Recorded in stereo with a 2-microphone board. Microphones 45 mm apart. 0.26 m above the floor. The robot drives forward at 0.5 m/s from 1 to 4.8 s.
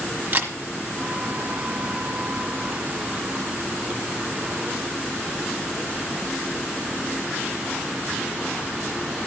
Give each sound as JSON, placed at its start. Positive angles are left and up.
{"t": 0.3, "sound": "a camera shutter", "side_deg": -45, "distance_m": 1.3}